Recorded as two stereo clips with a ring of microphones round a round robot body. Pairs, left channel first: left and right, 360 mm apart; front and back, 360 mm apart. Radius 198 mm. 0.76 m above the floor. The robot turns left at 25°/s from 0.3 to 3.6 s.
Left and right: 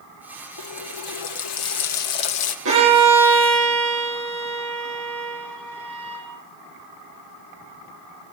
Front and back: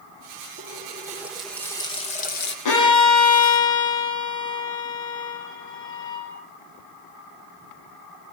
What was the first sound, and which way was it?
A running tap, 110° left.